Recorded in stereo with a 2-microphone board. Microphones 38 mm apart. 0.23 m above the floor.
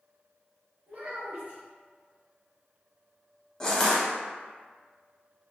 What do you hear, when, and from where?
0.9 s a child speaking: 40° right (ahead or behind), 1.3 m
3.6 s crushing: 20° left (ahead or behind), 0.8 m